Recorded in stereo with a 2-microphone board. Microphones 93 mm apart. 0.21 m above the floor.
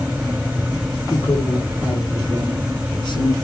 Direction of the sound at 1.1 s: 35° left (ahead or behind).